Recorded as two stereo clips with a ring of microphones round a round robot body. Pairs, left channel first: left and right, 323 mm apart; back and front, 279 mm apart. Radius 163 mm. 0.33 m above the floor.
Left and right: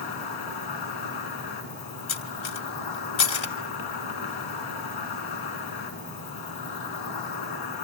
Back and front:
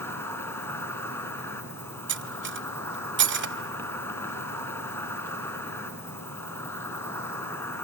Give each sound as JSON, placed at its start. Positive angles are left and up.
{"t": 0.0, "sound": "an insect", "azimuth_deg": 100, "distance_m": 2.5}
{"t": 2.1, "sound": "cutlery clinking", "azimuth_deg": 45, "distance_m": 1.5}